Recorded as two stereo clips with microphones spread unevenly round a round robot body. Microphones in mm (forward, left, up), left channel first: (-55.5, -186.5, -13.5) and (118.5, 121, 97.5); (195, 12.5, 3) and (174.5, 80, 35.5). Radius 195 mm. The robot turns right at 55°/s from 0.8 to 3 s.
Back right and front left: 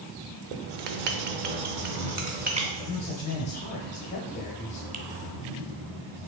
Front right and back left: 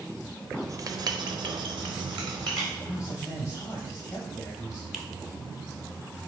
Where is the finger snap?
20° right, 0.7 m.